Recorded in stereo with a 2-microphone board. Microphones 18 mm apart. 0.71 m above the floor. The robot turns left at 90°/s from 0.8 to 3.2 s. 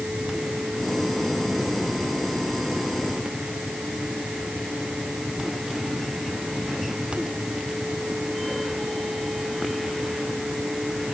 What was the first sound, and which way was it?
Only background noise.